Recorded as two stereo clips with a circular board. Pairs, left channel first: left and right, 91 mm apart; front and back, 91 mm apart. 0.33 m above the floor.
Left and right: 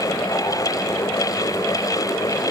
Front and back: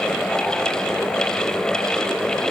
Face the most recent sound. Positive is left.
No sound to turn to.